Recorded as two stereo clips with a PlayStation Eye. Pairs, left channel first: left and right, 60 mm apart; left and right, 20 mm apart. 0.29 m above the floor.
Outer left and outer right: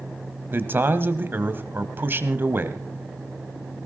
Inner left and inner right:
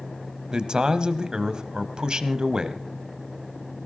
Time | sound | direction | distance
0.5 | a man speaking | 40° right (ahead or behind) | 1.3 m